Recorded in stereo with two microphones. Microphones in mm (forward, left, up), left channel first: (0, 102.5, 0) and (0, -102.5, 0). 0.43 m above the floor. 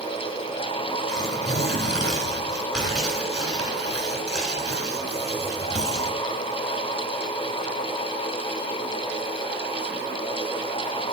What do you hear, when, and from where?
1.1 s tearing paper: 5° right (ahead or behind), 1.6 m